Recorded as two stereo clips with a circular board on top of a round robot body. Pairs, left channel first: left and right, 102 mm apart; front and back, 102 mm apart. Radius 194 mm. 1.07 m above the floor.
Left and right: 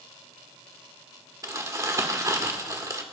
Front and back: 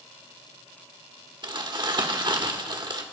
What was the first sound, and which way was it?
Crumpling, 145° right.